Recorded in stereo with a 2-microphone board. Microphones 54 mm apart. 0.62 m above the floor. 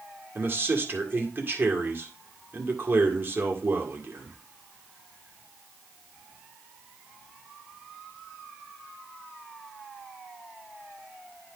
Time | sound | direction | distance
0.3 | a man speaking | 45° right (ahead or behind) | 1.9 m